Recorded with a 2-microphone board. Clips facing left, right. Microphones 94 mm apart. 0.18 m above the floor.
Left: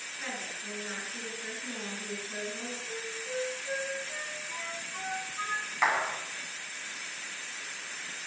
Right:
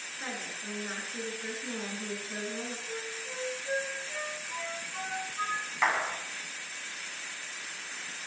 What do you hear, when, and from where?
0.2 s a woman speaking: 20° right (ahead or behind), 2.5 m
2.9 s a flute: 5° right (ahead or behind), 5.5 m
5.8 s a clap: 5° left (ahead or behind), 1.1 m